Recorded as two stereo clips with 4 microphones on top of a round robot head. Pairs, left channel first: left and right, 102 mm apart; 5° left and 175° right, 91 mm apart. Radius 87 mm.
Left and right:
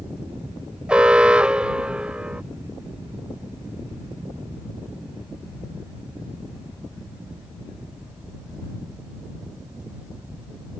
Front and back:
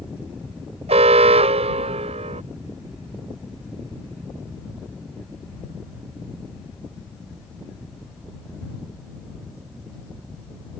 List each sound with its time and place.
0.9 s an alarm: 170° right